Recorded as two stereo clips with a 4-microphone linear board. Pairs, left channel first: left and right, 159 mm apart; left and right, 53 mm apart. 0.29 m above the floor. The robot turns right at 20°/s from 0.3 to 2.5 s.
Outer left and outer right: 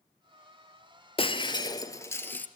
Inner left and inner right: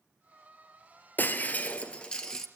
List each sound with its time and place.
1.2 s breaking glass: 35° left (ahead or behind), 1.8 m; by 2.5 s 10° left (ahead or behind), 1.8 m